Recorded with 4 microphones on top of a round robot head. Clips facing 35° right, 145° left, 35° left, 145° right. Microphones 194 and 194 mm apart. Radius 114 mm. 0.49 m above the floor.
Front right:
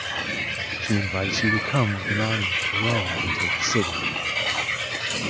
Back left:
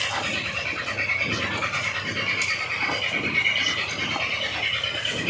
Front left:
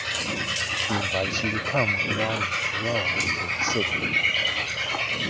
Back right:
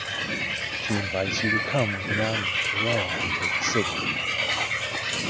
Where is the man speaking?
60° right.